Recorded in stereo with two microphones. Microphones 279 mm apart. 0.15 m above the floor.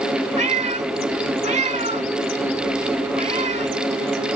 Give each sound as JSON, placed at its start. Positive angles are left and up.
{"t": 0.4, "sound": "a cat meowing", "side_deg": -25}